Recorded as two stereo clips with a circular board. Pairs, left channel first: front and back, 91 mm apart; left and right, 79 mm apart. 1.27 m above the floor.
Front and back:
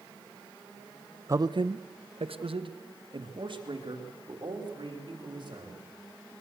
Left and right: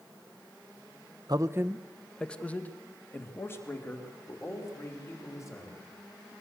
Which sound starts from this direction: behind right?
A man speaking, at 1.3 s.